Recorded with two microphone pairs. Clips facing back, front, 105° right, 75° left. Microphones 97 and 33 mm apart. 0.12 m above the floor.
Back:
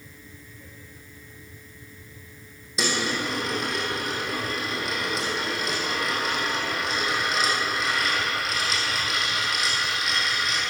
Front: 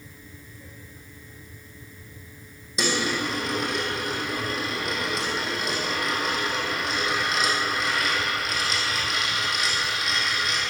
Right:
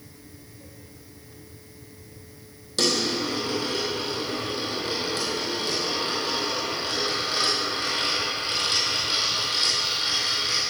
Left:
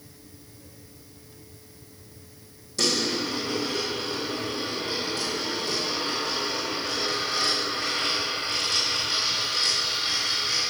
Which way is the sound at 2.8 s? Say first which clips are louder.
Front 1 dB, right 1 dB; 90° right.